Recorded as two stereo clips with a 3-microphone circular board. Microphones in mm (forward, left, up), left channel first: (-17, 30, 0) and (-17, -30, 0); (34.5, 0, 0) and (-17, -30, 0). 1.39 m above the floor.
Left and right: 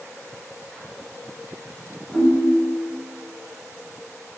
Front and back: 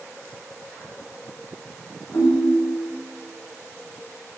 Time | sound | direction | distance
2.1 | a ringtone | 5° left | 2.0 m